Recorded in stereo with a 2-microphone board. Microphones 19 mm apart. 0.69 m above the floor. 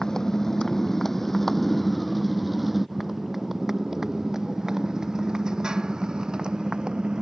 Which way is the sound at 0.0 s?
25° left (ahead or behind).